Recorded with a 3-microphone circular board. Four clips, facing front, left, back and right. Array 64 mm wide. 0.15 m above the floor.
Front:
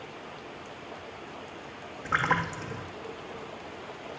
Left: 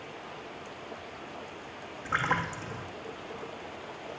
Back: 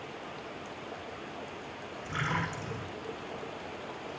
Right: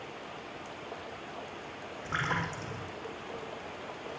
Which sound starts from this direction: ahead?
A splash, at 2.0 s.